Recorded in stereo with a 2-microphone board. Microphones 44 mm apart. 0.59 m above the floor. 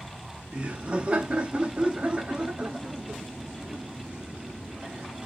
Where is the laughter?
25° right (ahead or behind), 0.8 m.